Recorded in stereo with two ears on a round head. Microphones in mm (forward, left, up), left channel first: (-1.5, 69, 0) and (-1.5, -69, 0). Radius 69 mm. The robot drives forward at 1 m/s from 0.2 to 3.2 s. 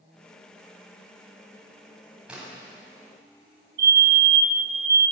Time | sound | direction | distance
2.3 | a splash | 5° right (ahead or behind) | 9 m
3.8 | a fire alarm | 75° right (ahead or behind) | 4.5 m